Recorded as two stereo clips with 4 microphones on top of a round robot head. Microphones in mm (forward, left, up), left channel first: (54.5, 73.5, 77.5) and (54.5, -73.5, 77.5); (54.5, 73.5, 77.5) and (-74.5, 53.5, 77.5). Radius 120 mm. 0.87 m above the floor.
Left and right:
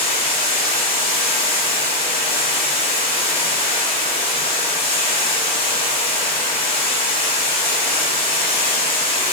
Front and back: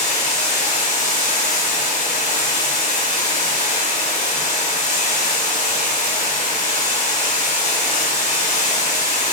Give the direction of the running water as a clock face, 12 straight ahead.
11 o'clock.